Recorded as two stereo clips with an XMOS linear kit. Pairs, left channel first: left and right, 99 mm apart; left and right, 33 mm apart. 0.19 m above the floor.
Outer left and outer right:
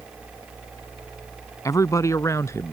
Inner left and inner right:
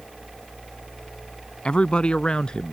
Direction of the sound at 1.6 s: 35° left (ahead or behind).